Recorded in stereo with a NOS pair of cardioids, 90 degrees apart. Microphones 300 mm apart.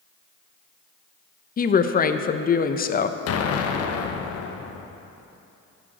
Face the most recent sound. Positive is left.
turn(degrees=55)